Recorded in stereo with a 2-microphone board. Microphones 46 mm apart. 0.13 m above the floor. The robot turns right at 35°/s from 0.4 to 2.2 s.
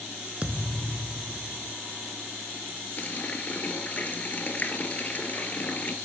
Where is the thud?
60° right, 0.8 m; by 1.7 s 15° right, 0.8 m.